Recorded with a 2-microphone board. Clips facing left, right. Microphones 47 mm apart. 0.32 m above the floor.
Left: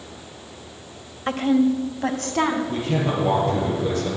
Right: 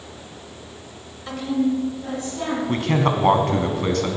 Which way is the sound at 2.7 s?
65° right (ahead or behind).